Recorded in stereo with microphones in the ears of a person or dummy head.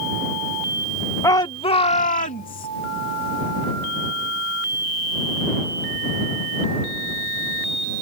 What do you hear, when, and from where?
1.2 s a shout: 15° left (ahead or behind); by 2.7 s 45° left (ahead or behind)